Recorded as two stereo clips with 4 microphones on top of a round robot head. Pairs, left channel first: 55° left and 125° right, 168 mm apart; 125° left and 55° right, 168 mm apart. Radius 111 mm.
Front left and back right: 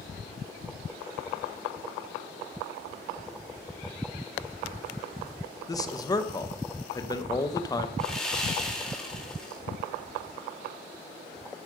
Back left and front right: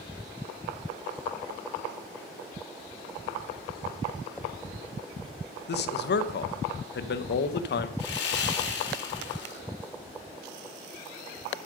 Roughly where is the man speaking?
Behind left.